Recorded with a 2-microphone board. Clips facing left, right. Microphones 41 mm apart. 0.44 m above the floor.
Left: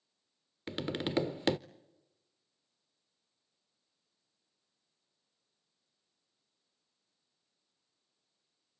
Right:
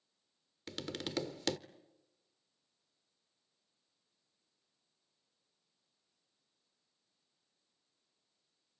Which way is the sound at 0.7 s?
25° left (ahead or behind).